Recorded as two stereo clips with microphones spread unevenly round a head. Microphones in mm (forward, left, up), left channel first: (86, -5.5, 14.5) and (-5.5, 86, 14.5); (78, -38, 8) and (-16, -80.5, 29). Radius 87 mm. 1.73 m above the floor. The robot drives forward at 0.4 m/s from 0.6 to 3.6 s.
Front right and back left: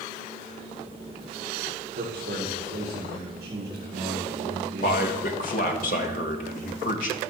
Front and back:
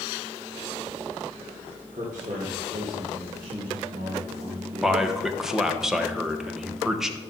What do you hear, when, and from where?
1.9 s a man speaking: 155° left, 2 m; by 5.0 s 160° left, 2.5 m
4.8 s a man speaking: 75° right, 1.1 m